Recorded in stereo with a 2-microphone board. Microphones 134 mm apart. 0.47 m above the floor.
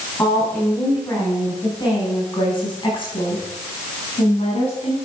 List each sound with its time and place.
0.2 s a woman speaking: 20° left (ahead or behind), 5 m; by 5.0 s 50° left (ahead or behind), 5 m